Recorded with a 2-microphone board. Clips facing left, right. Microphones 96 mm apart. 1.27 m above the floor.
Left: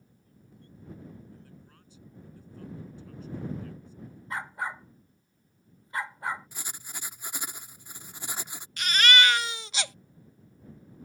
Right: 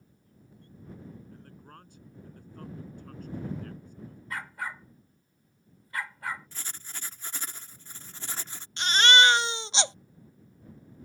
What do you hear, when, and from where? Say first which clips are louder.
1.3 s a man speaking: right 3 dB; 60° right (ahead or behind)
4.3 s a dog barking: left 3 dB; 25° left (ahead or behind)
6.5 s writing: left 1 dB; 15° left (ahead or behind)
8.8 s a baby crying: right 2 dB; 30° right (ahead or behind)